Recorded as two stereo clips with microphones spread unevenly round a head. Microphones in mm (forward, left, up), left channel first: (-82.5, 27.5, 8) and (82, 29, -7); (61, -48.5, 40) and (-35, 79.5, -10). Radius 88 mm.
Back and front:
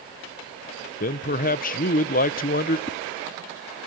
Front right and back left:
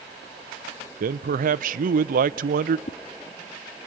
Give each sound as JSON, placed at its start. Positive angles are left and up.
{"t": 1.0, "sound": "a man speaking", "azimuth_deg": 145, "distance_m": 0.7}
{"t": 2.9, "sound": "a whoosh", "azimuth_deg": -115, "distance_m": 0.7}